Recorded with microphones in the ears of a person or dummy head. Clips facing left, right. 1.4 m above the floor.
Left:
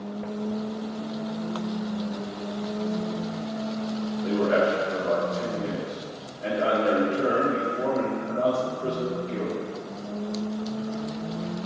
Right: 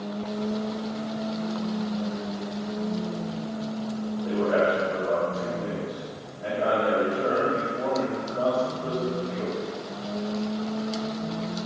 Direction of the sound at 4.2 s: 35° left (ahead or behind).